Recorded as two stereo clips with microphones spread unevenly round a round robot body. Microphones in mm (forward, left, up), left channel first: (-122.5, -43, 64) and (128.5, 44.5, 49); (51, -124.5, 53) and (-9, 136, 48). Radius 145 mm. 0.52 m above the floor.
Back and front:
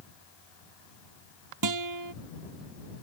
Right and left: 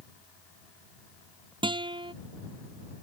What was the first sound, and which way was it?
A guitar, 30° left.